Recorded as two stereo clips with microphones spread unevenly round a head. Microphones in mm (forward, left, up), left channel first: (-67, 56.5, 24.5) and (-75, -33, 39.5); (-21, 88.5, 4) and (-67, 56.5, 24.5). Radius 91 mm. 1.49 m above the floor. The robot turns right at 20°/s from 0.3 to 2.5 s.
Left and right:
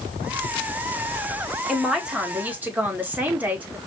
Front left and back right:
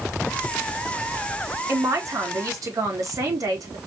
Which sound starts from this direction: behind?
A man speaking, at 1.7 s.